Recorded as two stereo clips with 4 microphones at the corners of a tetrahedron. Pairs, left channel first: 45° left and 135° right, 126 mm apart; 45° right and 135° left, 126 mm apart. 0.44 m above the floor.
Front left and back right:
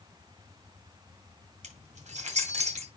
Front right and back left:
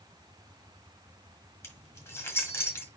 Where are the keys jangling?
115° right, 3.5 m.